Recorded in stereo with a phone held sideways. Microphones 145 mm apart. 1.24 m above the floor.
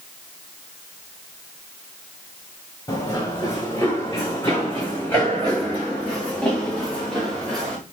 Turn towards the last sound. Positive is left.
turn(degrees=5)  # may be behind; listen again after turning